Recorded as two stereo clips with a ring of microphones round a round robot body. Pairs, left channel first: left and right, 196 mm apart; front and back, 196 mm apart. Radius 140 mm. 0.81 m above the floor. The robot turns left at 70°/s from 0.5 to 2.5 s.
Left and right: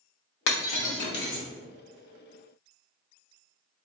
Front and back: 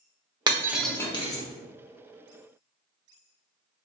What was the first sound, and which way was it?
Breaking glass, 110° left.